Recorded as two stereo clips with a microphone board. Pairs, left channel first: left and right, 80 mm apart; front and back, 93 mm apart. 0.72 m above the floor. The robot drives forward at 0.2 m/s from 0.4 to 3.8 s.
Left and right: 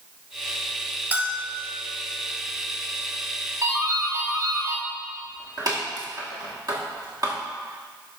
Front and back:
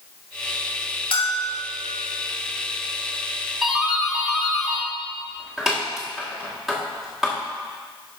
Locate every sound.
1.1 s a bell: 20° right, 1.6 m
3.6 s a doorbell: 95° right, 1.9 m